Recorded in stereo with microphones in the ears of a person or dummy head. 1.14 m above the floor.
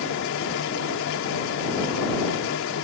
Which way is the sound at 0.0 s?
65° left (ahead or behind).